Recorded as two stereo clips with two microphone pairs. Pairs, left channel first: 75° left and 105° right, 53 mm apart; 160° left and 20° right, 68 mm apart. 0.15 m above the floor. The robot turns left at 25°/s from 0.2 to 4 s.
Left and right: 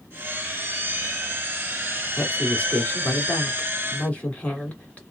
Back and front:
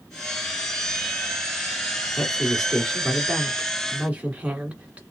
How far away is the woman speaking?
About 1.6 m.